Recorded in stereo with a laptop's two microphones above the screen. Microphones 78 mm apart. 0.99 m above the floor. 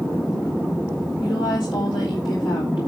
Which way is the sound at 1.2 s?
75° left (ahead or behind).